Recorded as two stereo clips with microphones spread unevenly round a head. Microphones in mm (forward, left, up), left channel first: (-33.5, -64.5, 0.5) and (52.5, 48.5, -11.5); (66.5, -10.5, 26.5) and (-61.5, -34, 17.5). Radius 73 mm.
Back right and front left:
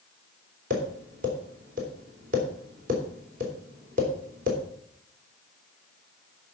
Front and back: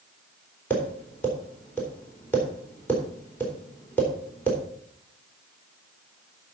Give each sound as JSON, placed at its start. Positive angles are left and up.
{"t": 0.7, "sound": "tapping", "azimuth_deg": 90, "distance_m": 4.0}